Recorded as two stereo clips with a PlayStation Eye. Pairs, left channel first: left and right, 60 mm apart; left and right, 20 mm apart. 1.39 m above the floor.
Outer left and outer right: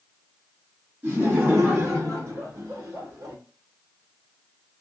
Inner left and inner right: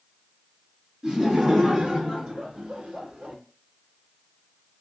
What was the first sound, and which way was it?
Laughter, 35° right (ahead or behind).